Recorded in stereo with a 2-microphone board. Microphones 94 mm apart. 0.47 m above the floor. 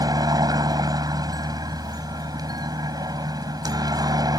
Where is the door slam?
I don't hear a door slam.